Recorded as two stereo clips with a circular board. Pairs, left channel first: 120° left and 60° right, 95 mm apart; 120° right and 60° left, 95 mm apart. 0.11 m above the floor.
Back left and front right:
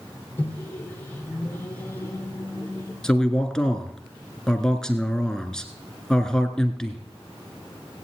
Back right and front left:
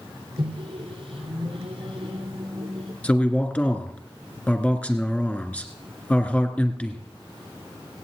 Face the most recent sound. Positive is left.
turn(degrees=-170)